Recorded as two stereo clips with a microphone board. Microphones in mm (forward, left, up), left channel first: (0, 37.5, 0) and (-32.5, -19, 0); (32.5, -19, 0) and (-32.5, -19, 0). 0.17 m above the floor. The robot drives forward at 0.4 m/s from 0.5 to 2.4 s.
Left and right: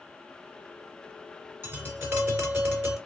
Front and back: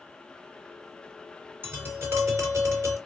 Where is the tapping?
150° right, 1.9 m; by 3.0 s 155° right, 2 m.